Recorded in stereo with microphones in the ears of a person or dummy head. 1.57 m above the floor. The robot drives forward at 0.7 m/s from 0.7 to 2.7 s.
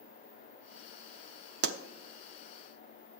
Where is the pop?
60° right (ahead or behind), 0.9 m; by 1.8 s 65° right (ahead or behind), 0.8 m.